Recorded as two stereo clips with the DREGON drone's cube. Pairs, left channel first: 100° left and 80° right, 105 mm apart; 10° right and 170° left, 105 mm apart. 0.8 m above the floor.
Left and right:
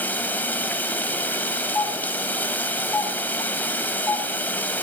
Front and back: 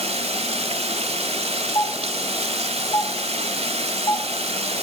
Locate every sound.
0.0 s running water: 175° left, 1.4 m
1.8 s a doorbell: 25° left, 2.5 m